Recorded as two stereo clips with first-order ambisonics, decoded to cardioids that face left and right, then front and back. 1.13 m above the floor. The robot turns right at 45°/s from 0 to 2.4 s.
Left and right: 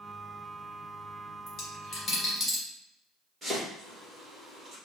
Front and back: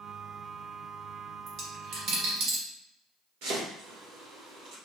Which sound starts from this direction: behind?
Chopping, at 3.4 s.